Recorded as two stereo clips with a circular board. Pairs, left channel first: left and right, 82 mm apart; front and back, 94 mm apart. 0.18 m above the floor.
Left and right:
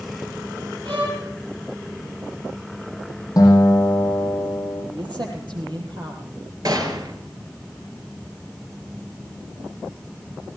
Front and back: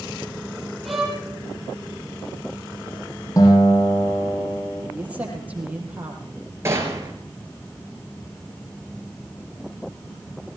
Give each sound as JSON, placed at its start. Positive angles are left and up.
{"t": 0.8, "sound": "a violin", "azimuth_deg": -90, "distance_m": 5.0}
{"t": 3.4, "sound": "a guitar", "azimuth_deg": 50, "distance_m": 9.0}
{"t": 4.9, "sound": "a man speaking", "azimuth_deg": -105, "distance_m": 5.5}
{"t": 6.7, "sound": "a gunshot", "azimuth_deg": -120, "distance_m": 3.0}